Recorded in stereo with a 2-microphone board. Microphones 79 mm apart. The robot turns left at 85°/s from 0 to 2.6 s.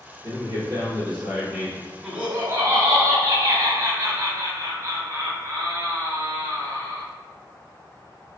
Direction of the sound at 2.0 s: 5° right.